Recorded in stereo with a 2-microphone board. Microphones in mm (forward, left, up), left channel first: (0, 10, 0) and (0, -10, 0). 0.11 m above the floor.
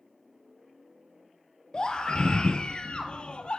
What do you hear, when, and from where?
1.7 s a scream: 45° left (ahead or behind), 2.5 m; by 3.6 s 60° left (ahead or behind), 3 m